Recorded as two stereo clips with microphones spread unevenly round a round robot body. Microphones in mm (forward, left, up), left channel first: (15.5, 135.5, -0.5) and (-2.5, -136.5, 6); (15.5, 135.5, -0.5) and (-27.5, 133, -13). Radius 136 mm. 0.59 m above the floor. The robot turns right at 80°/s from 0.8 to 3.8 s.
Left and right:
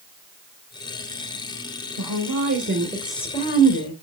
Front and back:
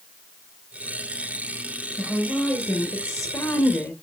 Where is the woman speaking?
95° right, 1.9 m; by 3.9 s 50° left, 1.9 m.